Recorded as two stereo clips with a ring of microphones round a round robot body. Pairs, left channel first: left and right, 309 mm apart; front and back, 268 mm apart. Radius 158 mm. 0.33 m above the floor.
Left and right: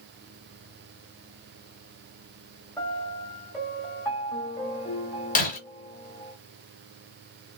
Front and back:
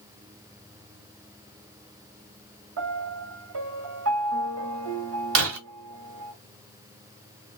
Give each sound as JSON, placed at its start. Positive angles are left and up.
{"t": 2.8, "sound": "a piano", "azimuth_deg": 170, "distance_m": 1.7}
{"t": 5.3, "sound": "breaking glass", "azimuth_deg": 155, "distance_m": 1.5}